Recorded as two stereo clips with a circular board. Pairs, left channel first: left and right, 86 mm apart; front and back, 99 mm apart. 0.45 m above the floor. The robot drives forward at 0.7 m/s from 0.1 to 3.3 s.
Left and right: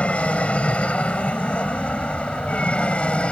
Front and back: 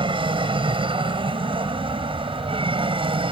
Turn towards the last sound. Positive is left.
turn(degrees=165)